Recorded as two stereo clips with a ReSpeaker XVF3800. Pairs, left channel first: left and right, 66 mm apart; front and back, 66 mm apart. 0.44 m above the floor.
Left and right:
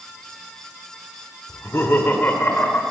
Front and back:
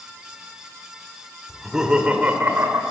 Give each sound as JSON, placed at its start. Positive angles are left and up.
{"t": 1.5, "sound": "laughter", "azimuth_deg": 90, "distance_m": 1.2}